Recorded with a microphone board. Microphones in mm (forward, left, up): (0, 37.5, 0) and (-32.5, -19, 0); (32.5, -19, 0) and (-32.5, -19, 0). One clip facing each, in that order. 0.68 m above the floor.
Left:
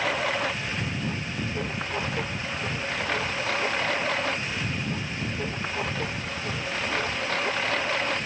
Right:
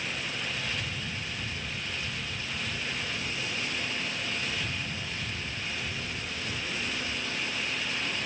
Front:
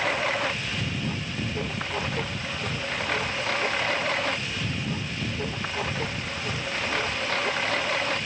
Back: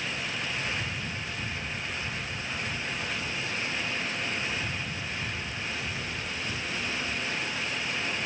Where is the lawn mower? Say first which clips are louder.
Left 9 dB, front 8 dB; 35° left; by 8.3 s 30° left.